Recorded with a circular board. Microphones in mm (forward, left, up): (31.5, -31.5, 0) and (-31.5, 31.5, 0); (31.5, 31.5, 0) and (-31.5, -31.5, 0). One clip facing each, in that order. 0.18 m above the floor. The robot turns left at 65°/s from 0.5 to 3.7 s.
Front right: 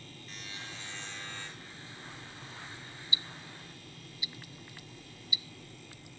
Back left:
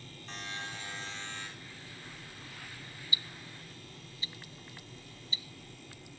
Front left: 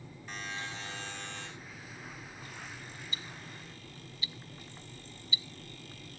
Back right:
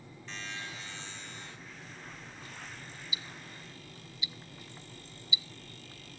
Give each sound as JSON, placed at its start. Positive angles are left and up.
{"t": 0.3, "sound": "a buzzer", "azimuth_deg": 125, "distance_m": 4.5}
{"t": 3.1, "sound": "ticking", "azimuth_deg": -65, "distance_m": 0.5}